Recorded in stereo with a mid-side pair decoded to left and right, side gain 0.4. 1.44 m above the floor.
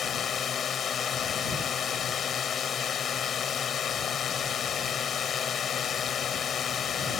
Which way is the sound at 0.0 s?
60° left.